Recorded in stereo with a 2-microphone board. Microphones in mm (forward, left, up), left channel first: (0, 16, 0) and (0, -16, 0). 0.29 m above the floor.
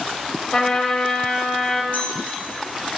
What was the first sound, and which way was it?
A trumpet, 25° left (ahead or behind).